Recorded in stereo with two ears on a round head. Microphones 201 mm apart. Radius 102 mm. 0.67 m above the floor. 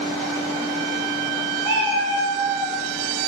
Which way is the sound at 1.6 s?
15° left (ahead or behind).